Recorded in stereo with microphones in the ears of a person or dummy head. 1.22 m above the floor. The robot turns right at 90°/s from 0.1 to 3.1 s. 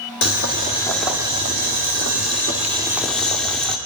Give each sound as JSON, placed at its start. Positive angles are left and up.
{"t": 0.2, "sound": "boiling", "azimuth_deg": 105, "distance_m": 1.5}